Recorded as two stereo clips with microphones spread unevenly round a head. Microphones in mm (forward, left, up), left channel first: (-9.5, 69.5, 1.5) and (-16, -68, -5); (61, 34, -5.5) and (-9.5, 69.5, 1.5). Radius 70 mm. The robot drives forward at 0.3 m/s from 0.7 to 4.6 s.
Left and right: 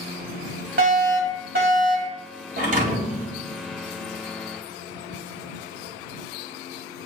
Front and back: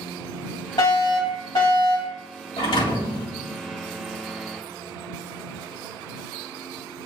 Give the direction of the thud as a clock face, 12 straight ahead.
2 o'clock.